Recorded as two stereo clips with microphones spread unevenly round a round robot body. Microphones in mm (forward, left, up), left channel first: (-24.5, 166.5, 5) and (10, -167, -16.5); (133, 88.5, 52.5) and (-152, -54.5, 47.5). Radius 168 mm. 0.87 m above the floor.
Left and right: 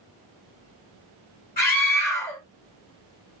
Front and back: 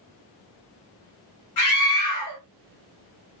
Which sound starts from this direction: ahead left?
A scream, at 1.6 s.